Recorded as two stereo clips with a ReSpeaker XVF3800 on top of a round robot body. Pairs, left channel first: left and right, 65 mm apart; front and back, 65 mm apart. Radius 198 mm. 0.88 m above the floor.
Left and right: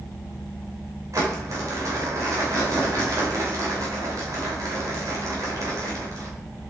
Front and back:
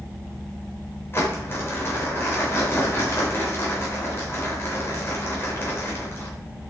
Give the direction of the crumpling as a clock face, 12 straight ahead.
2 o'clock.